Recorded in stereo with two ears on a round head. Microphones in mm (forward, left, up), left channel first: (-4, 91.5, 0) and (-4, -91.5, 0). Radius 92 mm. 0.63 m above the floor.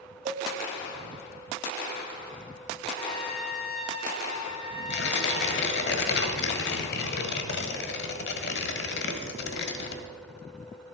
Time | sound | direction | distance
0.2 | a cowbell | 35° right (ahead or behind) | 2.5 m
3.0 | a trumpet | 30° left (ahead or behind) | 1.4 m
4.9 | tearing paper | 55° left (ahead or behind) | 1.3 m